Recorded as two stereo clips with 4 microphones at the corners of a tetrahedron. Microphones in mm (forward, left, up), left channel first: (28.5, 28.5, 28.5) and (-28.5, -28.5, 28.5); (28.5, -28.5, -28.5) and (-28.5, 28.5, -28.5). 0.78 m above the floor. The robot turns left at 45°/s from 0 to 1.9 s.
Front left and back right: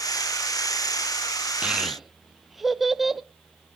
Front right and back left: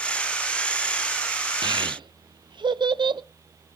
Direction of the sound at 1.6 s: 150° left.